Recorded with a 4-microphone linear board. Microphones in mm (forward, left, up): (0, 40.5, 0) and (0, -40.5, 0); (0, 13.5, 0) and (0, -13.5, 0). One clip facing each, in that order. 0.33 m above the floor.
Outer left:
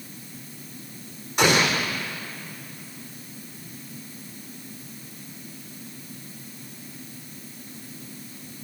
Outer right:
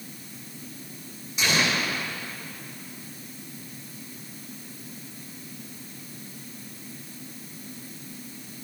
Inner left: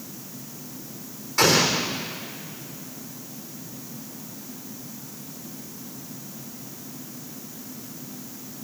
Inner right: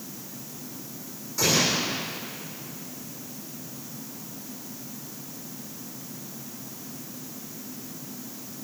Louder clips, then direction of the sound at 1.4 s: Outer left 5 dB, inner left 4 dB; 55° left (ahead or behind).